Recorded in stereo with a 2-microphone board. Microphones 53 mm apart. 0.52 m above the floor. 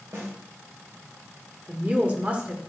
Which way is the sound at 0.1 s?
60° right (ahead or behind).